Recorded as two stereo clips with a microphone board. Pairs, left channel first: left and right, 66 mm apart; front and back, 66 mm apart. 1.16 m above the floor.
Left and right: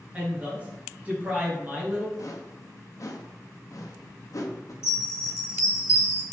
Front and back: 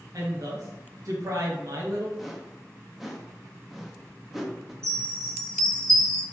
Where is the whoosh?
95° left, 0.6 m.